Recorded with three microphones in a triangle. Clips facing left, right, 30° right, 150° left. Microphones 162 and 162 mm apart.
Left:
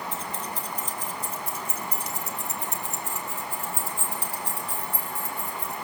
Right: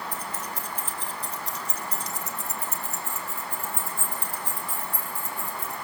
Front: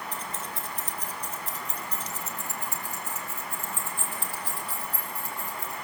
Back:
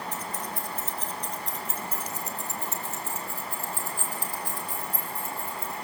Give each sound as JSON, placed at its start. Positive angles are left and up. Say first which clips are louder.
{"t": 0.1, "sound": "keys jangling", "louder": "left 1 dB, back 2 dB", "azimuth_deg": 25, "distance_m": 2.0}